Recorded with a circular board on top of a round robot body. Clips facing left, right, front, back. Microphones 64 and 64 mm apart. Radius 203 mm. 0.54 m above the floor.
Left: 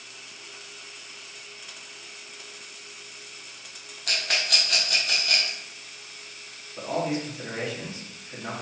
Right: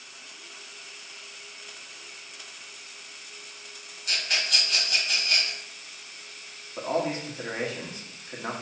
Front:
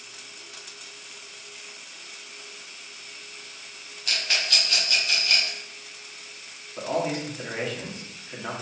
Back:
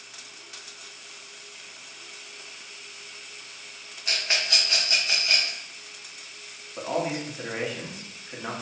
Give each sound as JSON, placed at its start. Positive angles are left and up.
{"t": 4.1, "sound": "a rattle", "azimuth_deg": 115, "distance_m": 1.1}
{"t": 6.8, "sound": "a man speaking", "azimuth_deg": -105, "distance_m": 1.3}